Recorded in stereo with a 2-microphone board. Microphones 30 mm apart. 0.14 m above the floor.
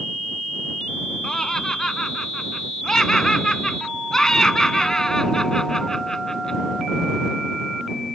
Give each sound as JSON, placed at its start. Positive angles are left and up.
{"t": 1.2, "sound": "laughter", "side_deg": 20}